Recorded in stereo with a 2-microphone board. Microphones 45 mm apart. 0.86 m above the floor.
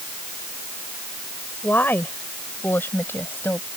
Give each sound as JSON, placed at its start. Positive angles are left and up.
{"t": 1.6, "sound": "a woman speaking", "side_deg": 45}